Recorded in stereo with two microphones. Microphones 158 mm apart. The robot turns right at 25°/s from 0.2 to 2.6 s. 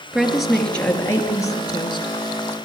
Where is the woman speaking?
5° right, 3 m; by 2.5 s 55° left, 3 m.